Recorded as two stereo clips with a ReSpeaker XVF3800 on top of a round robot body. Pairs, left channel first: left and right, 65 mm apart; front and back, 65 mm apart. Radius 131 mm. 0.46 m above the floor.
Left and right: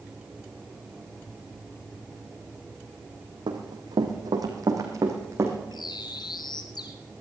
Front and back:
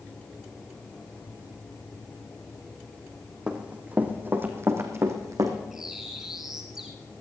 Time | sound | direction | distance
3.5 | running footsteps | 105° right | 2.0 m
5.7 | a bird | 95° left | 1.2 m